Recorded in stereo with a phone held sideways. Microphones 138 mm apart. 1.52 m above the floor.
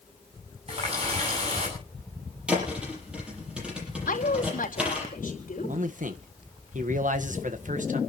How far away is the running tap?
About 8.5 m.